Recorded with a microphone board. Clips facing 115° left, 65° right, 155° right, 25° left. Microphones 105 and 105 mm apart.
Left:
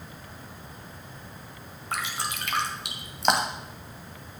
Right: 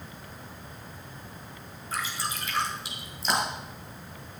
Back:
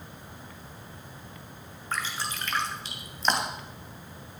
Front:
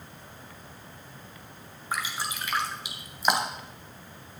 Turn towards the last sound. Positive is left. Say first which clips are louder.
# left 1 dB, front 1 dB
turn(degrees=100)